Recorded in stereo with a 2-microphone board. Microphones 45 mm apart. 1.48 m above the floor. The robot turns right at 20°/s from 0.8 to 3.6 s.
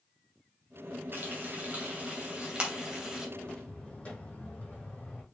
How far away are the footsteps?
About 3.5 m.